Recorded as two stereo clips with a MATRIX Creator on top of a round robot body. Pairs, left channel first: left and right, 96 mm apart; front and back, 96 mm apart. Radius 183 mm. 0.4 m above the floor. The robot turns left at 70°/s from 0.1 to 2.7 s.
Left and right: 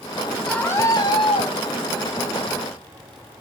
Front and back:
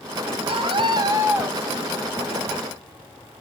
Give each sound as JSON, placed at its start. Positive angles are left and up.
{"t": 0.5, "sound": "a scream", "azimuth_deg": 175, "distance_m": 4.5}